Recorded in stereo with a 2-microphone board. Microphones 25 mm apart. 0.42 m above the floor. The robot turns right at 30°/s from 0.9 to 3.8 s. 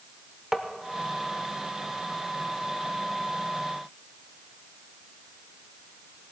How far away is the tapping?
About 0.8 m.